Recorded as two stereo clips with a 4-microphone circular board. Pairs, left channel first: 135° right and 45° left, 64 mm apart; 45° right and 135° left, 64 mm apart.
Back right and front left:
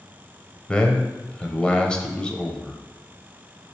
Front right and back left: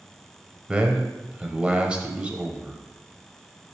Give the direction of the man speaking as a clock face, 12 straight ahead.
6 o'clock.